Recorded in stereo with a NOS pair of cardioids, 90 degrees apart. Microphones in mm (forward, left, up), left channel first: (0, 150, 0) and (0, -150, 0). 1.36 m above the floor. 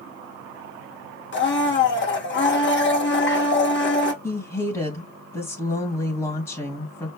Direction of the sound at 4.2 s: 15° left.